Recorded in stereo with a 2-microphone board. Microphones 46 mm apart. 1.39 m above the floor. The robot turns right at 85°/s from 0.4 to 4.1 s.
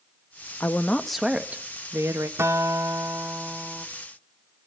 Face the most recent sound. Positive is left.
turn(degrees=25)